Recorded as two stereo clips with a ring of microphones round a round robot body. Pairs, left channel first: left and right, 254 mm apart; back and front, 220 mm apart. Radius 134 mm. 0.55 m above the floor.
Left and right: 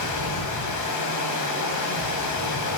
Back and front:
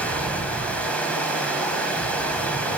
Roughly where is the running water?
Left.